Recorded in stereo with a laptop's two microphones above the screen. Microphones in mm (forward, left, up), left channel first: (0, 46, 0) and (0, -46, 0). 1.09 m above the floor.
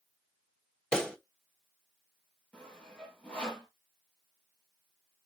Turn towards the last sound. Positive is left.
turn(degrees=10)  # may be behind; listen again after turning